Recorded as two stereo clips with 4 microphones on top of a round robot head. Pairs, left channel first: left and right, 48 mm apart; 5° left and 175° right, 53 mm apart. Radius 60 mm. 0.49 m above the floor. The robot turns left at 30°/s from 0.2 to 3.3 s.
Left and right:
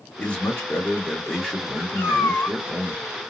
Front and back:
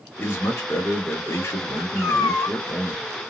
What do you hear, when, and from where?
0.2 s a man speaking: 55° left, 1.7 m; by 3.0 s 30° right, 1.7 m
1.9 s a cat meowing: 50° left, 1.5 m; by 2.6 s 30° left, 1.5 m